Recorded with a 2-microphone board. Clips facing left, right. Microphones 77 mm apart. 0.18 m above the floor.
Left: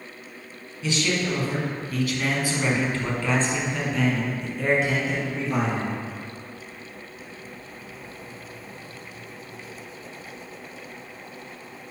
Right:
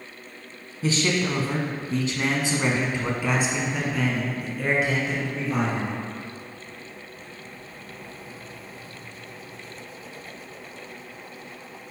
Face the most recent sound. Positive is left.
turn(degrees=5)  # may be behind; listen again after turning